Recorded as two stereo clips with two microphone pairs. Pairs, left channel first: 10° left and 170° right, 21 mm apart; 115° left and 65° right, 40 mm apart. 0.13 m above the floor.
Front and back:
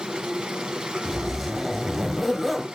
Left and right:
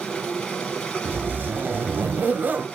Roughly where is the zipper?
Right.